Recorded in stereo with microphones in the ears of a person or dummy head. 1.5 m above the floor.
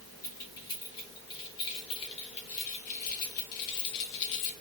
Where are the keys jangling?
20° left (ahead or behind), 3 m; by 4.5 s 70° left (ahead or behind), 1.7 m.